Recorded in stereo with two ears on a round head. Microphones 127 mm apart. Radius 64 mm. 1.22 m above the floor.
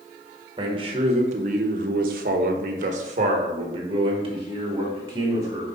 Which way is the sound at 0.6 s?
30° right (ahead or behind).